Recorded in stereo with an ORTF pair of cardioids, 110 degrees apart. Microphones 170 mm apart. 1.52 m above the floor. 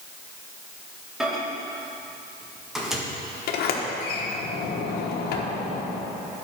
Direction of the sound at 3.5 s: 65° left.